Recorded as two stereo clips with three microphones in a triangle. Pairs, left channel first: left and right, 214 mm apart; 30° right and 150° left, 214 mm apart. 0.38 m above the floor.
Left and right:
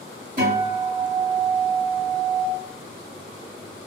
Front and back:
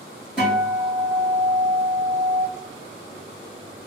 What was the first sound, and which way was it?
A guitar, 125° right.